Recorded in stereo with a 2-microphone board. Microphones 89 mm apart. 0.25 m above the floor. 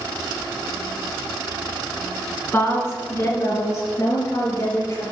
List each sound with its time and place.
2.5 s a woman speaking: 25° left (ahead or behind), 2.5 m; by 5.0 s 40° left (ahead or behind), 4.5 m